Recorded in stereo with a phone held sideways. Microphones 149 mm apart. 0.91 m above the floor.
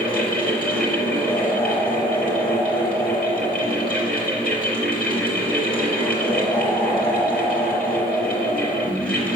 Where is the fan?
5° left (ahead or behind), 4.5 m.